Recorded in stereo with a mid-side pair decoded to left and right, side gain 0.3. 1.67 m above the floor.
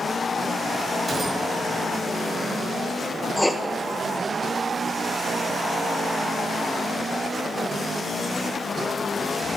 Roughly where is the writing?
Ahead.